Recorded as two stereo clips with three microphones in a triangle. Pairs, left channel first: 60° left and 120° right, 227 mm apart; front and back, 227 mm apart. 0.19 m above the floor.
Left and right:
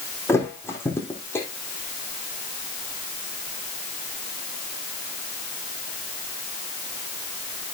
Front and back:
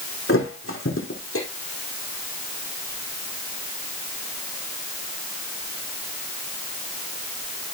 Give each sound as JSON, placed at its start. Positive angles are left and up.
{"t": 0.3, "sound": "a thud", "azimuth_deg": -20, "distance_m": 4.5}